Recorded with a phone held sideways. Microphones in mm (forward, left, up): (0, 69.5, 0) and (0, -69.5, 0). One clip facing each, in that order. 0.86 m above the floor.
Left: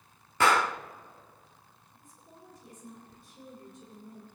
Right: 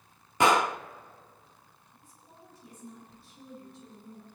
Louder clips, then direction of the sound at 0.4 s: Right 2 dB; 15° right (ahead or behind).